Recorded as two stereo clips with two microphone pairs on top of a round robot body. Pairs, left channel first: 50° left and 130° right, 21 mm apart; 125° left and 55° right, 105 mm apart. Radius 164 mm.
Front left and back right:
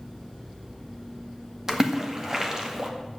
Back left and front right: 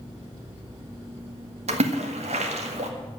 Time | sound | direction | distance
1.7 | a splash | 55° right | 2 m